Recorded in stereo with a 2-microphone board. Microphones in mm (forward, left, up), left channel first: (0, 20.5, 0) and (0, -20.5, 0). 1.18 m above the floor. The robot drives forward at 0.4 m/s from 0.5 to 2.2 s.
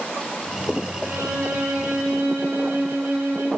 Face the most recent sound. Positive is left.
turn(degrees=-55)  # may be behind; listen again after turning